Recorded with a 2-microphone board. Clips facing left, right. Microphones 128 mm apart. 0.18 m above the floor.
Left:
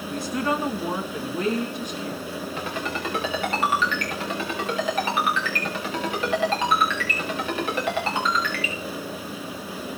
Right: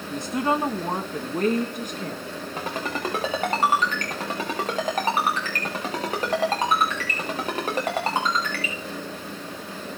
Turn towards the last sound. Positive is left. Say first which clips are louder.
# right 3 dB
turn(degrees=-40)  # may be behind; listen again after turning